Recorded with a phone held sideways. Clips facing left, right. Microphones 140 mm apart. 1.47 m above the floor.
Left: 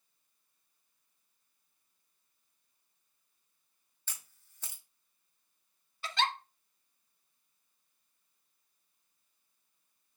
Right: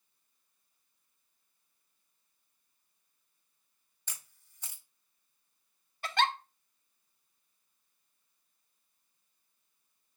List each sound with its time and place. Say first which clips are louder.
4.1 s a camera shutter: even; 10° right (ahead or behind), 1.3 m
6.0 s a giggle: right 3 dB; 55° right (ahead or behind), 0.5 m